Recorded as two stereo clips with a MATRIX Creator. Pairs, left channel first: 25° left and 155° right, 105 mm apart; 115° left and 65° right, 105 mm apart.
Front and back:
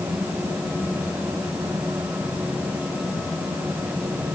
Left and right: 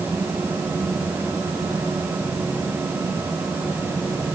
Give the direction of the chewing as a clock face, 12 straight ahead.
I don't hear chewing.